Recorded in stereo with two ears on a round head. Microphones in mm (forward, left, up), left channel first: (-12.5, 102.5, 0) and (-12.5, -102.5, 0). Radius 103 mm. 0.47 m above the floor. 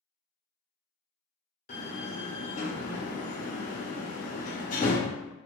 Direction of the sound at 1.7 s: 35° left (ahead or behind).